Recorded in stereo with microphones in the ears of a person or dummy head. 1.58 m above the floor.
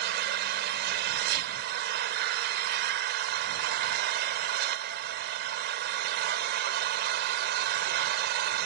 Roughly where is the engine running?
Right.